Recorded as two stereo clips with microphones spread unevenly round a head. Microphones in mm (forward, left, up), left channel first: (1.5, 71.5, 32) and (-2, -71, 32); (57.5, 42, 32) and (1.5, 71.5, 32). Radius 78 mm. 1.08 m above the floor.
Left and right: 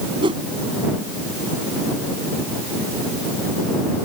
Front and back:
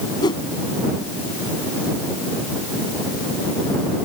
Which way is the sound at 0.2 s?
35° right.